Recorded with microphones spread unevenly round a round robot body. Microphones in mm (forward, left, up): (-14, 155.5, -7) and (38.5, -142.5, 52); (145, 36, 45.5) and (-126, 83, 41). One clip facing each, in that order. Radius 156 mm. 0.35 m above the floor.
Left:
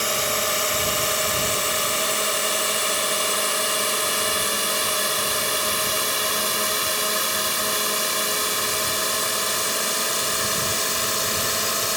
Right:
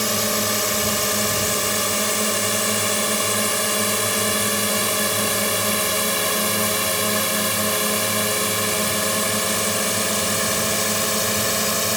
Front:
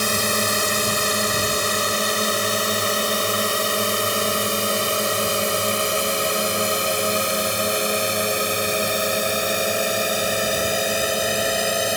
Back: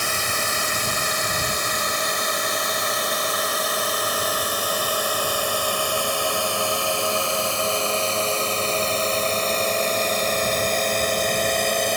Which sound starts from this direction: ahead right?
A drone, at 0.0 s.